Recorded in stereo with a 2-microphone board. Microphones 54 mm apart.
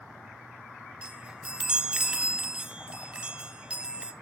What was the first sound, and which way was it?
A chime, 20° right (ahead or behind).